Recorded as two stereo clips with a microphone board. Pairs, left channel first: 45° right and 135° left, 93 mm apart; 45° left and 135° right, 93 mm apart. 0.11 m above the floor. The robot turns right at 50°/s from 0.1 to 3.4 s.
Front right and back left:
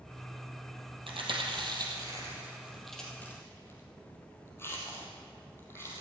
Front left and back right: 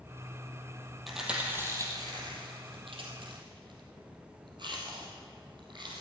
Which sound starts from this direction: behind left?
Chewing, at 1.1 s.